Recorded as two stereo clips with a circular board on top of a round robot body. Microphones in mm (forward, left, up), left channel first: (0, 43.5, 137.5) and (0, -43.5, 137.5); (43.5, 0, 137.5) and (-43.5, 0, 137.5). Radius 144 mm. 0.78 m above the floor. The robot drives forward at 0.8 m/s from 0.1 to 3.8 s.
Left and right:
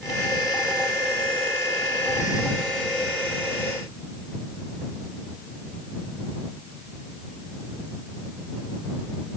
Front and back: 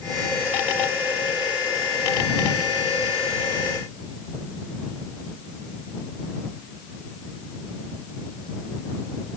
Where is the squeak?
No squeak in this recording.